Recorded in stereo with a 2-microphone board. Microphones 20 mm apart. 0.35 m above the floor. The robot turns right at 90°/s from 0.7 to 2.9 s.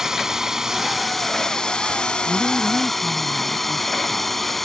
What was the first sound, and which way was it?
A drone, 30° right.